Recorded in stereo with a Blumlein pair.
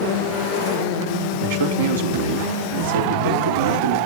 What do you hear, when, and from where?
1.4 s a man speaking: 60° right, 5 m